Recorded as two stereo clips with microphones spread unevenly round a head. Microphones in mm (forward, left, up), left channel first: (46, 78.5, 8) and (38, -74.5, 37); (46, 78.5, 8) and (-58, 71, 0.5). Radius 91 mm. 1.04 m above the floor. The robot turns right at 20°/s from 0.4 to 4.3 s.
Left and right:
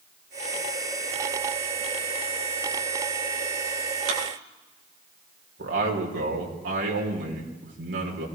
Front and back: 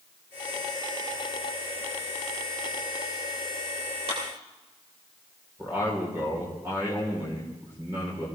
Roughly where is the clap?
Behind right.